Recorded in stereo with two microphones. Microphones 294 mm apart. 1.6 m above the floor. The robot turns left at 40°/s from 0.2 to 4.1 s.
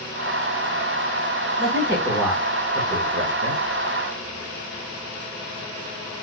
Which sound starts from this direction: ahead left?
A man speaking, at 1.6 s.